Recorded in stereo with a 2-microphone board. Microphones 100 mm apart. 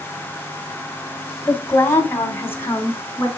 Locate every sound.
1.5 s a woman speaking: 30° left (ahead or behind), 1.5 m; by 3.3 s 20° left (ahead or behind), 3 m